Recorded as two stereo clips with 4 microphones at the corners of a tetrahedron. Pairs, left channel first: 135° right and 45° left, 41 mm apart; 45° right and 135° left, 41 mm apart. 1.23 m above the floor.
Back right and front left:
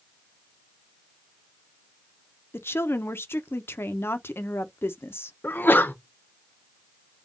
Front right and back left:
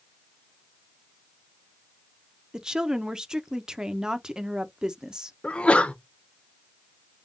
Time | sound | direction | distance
2.5 | a woman speaking | 150° right | 0.5 m
5.4 | a sneeze | 105° right | 0.6 m